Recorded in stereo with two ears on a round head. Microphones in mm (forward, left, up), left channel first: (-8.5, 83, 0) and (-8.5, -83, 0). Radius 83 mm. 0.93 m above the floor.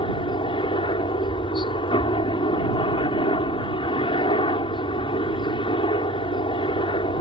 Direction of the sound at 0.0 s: 30° left (ahead or behind).